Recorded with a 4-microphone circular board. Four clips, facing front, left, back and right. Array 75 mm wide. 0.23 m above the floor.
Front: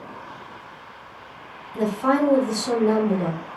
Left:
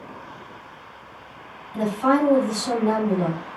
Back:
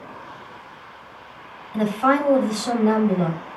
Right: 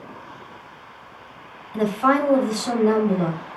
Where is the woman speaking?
150° right, 1.1 m.